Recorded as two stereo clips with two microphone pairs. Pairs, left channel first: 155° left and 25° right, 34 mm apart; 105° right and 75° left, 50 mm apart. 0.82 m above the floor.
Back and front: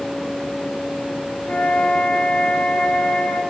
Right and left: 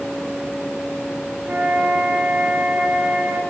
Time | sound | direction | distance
1.5 | a flute | 130° left | 2.0 m